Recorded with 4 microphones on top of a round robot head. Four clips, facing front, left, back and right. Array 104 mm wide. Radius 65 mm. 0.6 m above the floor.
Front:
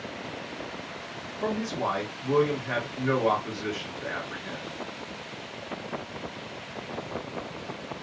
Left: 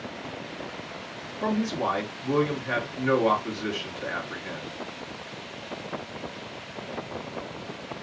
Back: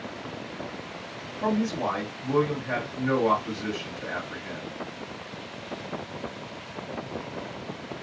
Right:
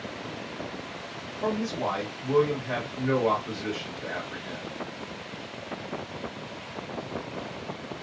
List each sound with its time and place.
1.4 s a man speaking: 75° left, 1.3 m